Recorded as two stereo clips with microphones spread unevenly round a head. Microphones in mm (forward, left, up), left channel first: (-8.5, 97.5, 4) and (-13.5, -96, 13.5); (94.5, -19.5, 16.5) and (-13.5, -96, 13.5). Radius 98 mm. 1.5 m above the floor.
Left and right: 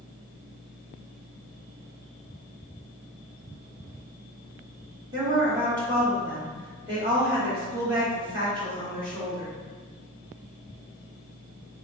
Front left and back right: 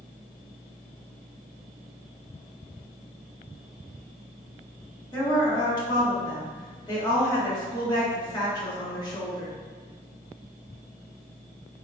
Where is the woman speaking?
25° right, 1.7 m.